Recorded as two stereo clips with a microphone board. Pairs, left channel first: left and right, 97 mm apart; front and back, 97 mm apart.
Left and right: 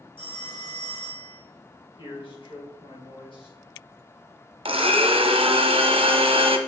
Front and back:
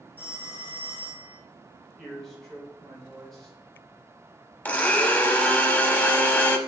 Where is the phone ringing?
70° left, 3 m.